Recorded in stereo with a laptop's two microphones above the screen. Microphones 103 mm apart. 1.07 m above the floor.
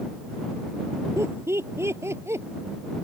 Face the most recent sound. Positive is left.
turn(degrees=-25)  # may be behind; listen again after turning